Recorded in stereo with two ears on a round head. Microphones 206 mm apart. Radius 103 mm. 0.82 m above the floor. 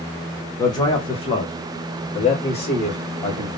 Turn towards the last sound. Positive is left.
turn(degrees=25)  # may be behind; listen again after turning